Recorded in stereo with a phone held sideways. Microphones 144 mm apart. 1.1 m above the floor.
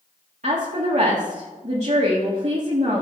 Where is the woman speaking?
55° right (ahead or behind), 1.7 m.